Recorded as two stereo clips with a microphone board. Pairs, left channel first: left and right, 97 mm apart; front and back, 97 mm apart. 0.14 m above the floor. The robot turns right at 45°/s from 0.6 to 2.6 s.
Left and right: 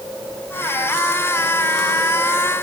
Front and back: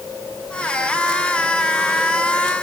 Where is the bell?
No bell in this recording.